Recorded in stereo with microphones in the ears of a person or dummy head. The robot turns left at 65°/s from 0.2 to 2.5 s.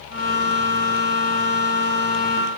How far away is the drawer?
No drawer in this recording.